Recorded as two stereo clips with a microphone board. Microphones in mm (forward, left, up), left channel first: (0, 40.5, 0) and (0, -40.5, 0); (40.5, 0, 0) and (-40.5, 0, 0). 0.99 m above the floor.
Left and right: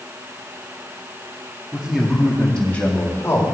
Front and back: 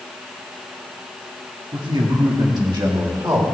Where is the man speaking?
170° right, 2.5 m; by 3.4 s 140° left, 2.5 m.